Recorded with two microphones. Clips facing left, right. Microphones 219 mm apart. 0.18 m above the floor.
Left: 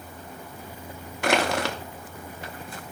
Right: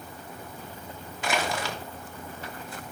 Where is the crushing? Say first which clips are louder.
Left 6 dB; 70° left (ahead or behind), 0.8 m.